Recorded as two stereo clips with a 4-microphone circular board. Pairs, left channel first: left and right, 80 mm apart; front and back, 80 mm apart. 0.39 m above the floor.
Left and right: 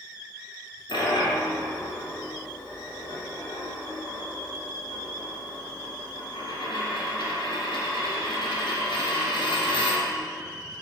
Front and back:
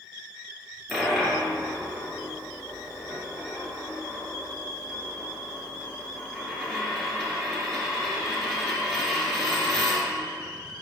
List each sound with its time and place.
0.9 s a dropped coin: 90° left, 2 m